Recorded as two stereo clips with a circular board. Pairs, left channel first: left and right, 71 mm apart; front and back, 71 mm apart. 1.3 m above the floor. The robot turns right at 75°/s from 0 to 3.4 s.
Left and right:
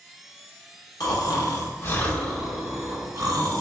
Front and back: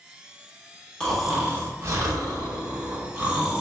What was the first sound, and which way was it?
Snoring, 75° left.